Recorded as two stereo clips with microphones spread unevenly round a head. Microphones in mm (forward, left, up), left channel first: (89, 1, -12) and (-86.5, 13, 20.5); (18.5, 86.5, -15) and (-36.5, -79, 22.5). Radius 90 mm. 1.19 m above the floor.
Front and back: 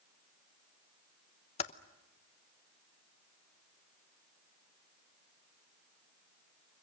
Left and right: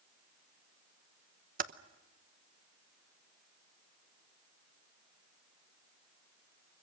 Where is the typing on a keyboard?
60° right, 0.9 m.